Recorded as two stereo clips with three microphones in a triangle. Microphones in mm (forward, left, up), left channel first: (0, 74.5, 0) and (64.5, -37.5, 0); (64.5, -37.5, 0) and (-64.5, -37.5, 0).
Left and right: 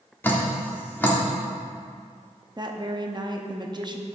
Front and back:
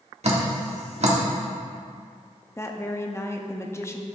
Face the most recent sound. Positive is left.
turn(degrees=-50)